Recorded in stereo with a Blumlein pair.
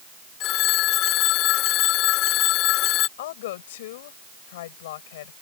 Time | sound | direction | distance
0.4 | a phone ringing | 35° left | ?
3.2 | a woman speaking | 55° left | ?